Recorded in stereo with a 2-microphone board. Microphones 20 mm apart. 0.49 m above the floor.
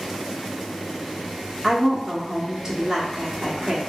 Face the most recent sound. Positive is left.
turn(degrees=-10)  # may be behind; listen again after turning